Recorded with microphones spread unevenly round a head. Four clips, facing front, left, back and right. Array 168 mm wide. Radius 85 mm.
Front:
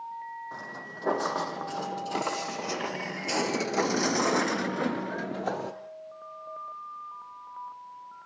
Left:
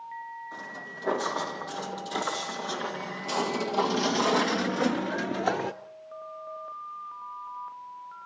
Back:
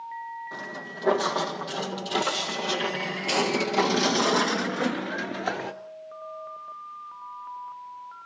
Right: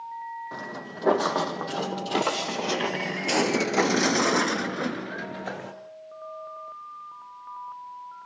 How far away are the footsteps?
About 4 m.